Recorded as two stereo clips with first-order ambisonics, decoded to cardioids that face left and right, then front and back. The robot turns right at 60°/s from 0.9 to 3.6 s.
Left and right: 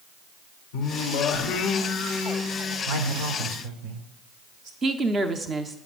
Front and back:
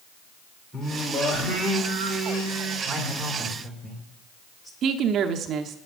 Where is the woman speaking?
155° right, 0.9 m.